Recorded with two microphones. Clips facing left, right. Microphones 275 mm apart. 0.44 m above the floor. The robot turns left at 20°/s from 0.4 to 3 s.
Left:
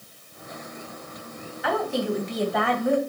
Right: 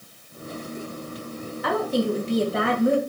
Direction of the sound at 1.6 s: 50° right (ahead or behind).